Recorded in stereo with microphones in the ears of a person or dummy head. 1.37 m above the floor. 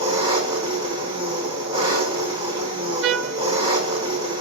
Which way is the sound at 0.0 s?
25° right (ahead or behind).